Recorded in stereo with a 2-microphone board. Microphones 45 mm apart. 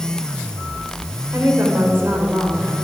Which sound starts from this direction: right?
A woman speaking, at 1.3 s.